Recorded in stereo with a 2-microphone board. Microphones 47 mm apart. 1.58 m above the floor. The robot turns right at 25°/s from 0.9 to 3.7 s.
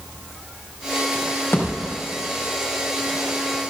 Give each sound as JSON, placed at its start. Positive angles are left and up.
{"t": 1.5, "sound": "a thud", "side_deg": 55, "distance_m": 4.5}